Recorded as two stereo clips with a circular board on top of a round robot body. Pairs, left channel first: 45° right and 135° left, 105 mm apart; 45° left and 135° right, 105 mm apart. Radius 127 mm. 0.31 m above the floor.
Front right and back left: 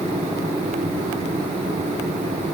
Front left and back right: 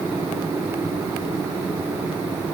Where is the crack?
I don't hear a crack.